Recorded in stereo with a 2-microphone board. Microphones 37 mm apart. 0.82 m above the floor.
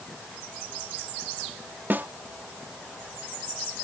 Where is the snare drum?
60° right (ahead or behind).